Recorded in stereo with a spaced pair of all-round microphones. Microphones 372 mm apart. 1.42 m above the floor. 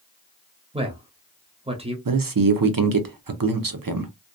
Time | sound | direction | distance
0.7 | a man speaking | 15° right (ahead or behind) | 0.6 m
2.0 | a man speaking | 65° right (ahead or behind) | 0.6 m